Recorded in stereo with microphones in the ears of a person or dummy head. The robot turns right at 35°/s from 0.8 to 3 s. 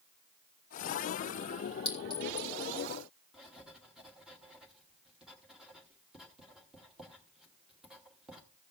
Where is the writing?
Centre (ahead or behind), 1.1 m.